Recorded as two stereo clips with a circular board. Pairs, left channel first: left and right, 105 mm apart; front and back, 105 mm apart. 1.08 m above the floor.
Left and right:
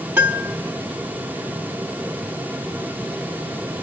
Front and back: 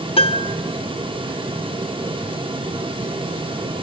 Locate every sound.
0.2 s a piano: 20° right, 0.7 m